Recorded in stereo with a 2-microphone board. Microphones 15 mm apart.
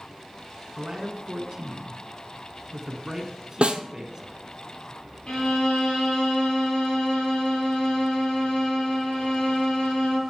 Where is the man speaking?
40° right (ahead or behind), 1.2 m.